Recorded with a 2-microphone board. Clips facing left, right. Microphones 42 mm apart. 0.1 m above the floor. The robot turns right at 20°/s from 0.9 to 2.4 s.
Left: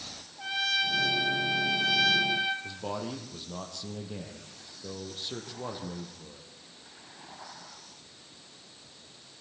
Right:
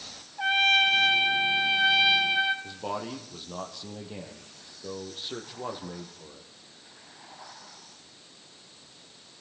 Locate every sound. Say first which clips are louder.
0.4 s a trumpet: right 8 dB; 55° right, 2 m; by 2.5 s 25° right, 2 m
2.6 s a man speaking: right 2 dB; 15° right (ahead or behind), 3.5 m